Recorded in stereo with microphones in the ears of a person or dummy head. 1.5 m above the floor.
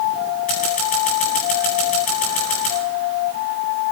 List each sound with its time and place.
0.5 s scissors: 35° left (ahead or behind), 9.5 m